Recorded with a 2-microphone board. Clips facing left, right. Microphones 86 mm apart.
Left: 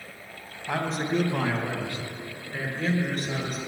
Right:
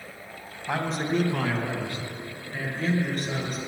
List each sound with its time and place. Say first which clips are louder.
0.7 s a man speaking: even; 10° right (ahead or behind), 1.6 m; by 3.6 s 45° left (ahead or behind), 4 m